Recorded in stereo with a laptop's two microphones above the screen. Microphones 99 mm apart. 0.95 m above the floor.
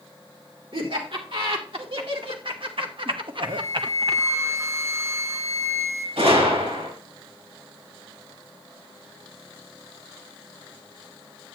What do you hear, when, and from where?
0.7 s laughter: 65° right (ahead or behind), 3 m; by 4.2 s 45° right (ahead or behind), 0.6 m
3.5 s a flute: 30° right (ahead or behind), 1.0 m
6.2 s a gunshot: 85° right, 4 m